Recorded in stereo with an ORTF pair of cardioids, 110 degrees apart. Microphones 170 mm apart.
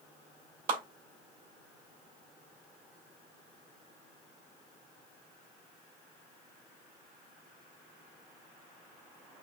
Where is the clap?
60° right, 2.5 m.